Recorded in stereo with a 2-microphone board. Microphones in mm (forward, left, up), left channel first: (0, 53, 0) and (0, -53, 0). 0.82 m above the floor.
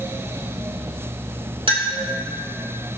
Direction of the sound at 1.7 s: 55° right (ahead or behind).